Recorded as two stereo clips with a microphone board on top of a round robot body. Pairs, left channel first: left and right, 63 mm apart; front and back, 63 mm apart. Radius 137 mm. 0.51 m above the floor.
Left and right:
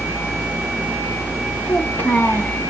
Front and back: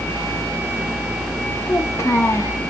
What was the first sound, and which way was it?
A child speaking, 35° left.